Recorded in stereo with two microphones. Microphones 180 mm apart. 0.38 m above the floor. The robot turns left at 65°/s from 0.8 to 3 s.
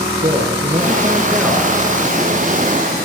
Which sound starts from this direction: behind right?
A man speaking, at 0.2 s.